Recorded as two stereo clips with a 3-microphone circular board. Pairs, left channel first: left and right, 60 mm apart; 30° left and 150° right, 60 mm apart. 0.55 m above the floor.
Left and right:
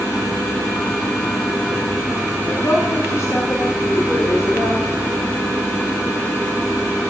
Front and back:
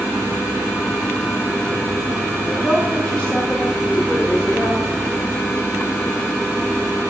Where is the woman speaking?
100° left, 1.1 m.